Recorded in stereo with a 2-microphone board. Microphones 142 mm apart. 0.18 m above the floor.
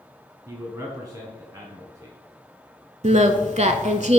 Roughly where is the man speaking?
Right.